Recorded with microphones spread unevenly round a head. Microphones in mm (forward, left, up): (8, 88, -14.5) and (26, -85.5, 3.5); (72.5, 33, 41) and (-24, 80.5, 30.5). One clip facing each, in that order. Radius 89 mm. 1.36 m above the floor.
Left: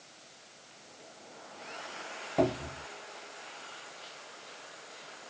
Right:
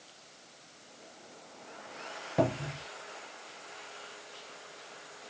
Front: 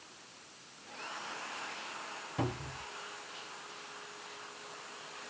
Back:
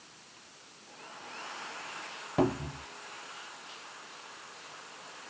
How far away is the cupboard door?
About 0.8 m.